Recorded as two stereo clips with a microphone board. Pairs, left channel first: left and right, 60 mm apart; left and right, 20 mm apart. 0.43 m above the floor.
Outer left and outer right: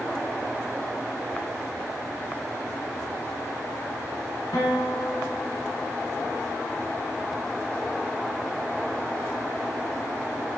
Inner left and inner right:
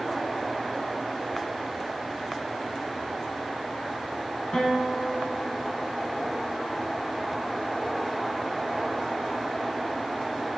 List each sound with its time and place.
4.5 s a guitar: 75° left (ahead or behind), 1.5 m